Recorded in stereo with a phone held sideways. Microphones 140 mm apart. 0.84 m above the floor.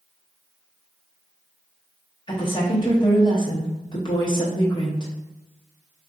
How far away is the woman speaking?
About 0.7 m.